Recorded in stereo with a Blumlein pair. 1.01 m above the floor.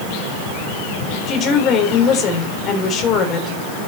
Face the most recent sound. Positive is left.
turn(degrees=30)